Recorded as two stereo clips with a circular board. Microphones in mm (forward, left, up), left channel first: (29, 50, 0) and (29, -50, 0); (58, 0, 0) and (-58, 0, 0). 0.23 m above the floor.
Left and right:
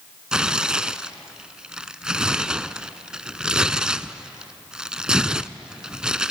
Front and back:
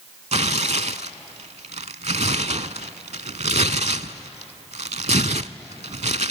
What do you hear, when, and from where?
0.3 s tearing paper: 170° right, 0.6 m